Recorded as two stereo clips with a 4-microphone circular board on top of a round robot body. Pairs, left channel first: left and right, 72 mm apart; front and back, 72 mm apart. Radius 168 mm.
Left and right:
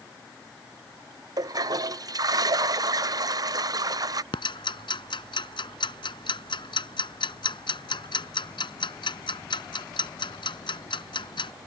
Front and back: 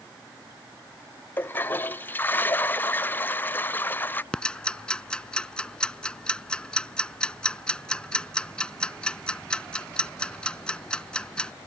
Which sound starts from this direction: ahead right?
A toilet flushing, at 1.4 s.